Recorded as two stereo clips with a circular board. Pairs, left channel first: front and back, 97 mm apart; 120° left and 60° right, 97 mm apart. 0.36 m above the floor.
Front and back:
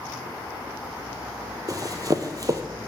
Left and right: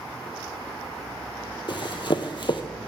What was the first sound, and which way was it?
Running footsteps, 135° left.